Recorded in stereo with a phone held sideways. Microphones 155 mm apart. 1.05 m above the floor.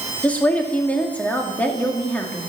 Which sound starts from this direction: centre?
A woman speaking, at 0.2 s.